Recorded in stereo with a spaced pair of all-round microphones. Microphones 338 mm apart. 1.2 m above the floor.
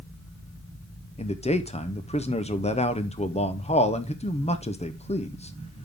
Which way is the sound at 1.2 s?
20° left (ahead or behind).